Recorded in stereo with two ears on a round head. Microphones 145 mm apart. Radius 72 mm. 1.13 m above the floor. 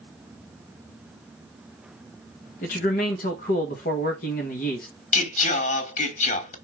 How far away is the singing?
About 1.3 m.